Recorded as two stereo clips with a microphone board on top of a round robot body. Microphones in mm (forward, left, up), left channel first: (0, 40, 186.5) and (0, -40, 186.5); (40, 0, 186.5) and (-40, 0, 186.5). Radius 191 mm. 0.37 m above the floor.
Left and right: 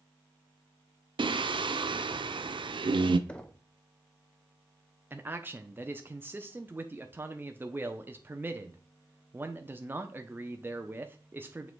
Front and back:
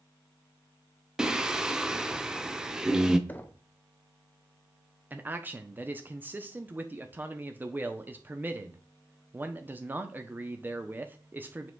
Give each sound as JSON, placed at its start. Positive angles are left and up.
{"t": 1.2, "sound": "singing", "azimuth_deg": -100, "distance_m": 0.6}
{"t": 3.3, "sound": "knocking", "azimuth_deg": 35, "distance_m": 1.1}
{"t": 5.1, "sound": "a man speaking", "azimuth_deg": -135, "distance_m": 0.9}